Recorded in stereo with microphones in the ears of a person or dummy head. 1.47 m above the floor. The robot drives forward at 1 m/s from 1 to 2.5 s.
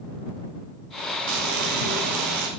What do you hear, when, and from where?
1.3 s frying: 60° right (ahead or behind), 2.5 m; by 2.5 s 45° right (ahead or behind), 3 m